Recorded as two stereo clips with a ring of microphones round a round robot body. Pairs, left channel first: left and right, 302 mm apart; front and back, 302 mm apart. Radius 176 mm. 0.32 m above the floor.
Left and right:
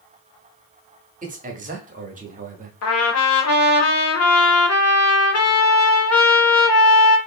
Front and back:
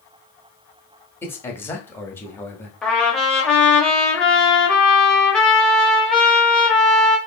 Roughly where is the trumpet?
Left.